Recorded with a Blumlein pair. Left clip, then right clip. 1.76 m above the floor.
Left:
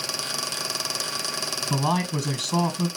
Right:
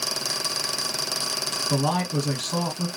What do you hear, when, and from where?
1.7 s a man speaking: 10° left, 1.2 m